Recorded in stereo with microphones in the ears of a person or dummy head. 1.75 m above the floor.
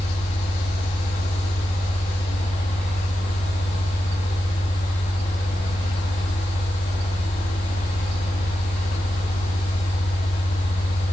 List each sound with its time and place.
0.0 s a fan: 35° left (ahead or behind), 0.7 m